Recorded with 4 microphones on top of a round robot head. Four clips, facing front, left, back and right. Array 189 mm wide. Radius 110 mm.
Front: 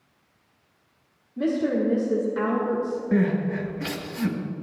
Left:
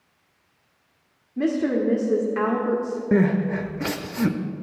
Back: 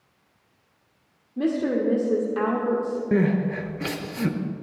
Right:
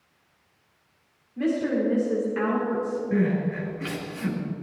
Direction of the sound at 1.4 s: 135° left.